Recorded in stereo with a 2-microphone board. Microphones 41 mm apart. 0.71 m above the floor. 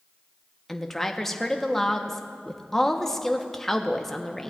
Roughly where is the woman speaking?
Centre.